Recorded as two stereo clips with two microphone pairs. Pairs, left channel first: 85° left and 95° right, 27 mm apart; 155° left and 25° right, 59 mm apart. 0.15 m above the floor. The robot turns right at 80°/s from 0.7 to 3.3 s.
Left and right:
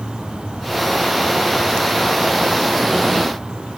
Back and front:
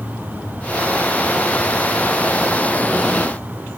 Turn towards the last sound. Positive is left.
No sound to turn to.